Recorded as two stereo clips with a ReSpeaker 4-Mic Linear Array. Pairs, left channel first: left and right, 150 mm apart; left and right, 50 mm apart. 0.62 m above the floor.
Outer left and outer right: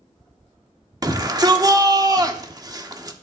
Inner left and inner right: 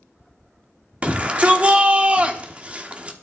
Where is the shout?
25° right (ahead or behind), 1.3 m.